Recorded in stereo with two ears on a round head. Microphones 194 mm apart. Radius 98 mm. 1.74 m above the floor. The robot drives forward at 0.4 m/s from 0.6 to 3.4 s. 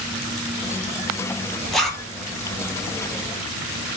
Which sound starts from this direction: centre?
A zipper, at 1.7 s.